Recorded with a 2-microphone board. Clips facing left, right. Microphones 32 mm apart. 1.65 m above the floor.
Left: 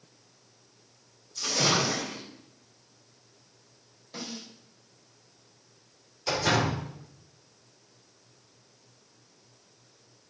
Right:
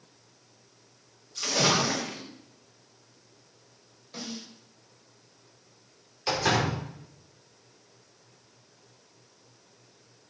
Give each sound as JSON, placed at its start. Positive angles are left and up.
{"t": 1.4, "sound": "a splash", "side_deg": -55, "distance_m": 2.0}
{"t": 4.1, "sound": "a snare drum", "side_deg": 0, "distance_m": 2.5}
{"t": 6.3, "sound": "a door slam", "side_deg": -30, "distance_m": 3.5}